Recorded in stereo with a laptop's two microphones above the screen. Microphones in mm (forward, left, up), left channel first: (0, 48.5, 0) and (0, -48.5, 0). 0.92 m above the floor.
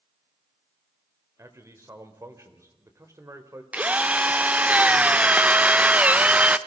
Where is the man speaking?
30° right (ahead or behind), 3.5 m.